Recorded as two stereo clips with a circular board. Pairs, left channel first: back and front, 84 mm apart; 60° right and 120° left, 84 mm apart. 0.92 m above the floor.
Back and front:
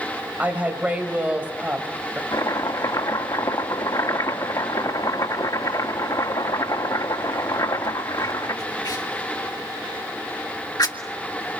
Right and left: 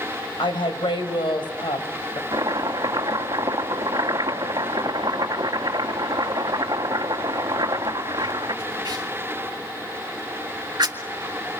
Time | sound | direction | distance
0.4 | a woman speaking | 70° right | 4 m
2.3 | chopping | 150° left | 2.0 m